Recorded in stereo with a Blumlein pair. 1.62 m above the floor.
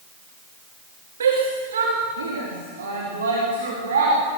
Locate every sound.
1.2 s a shout: 65° right, 3 m